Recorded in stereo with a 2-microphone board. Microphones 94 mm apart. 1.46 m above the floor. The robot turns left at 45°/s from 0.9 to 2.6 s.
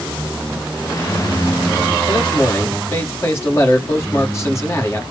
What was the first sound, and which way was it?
A man speaking, 55° left (ahead or behind).